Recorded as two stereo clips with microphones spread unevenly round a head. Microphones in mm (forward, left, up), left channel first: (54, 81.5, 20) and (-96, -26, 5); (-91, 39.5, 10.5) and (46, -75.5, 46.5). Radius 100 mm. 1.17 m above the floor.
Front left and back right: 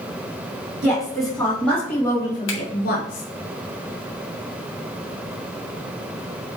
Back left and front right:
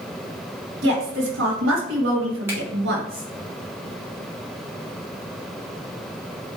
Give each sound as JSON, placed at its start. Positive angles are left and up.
{"t": 0.8, "sound": "a woman speaking", "azimuth_deg": -55, "distance_m": 3.0}
{"t": 2.5, "sound": "a finger snap", "azimuth_deg": 40, "distance_m": 2.0}